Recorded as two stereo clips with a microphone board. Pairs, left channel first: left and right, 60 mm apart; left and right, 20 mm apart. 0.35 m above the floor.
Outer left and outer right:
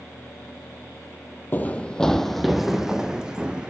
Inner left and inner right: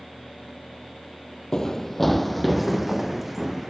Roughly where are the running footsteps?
Left.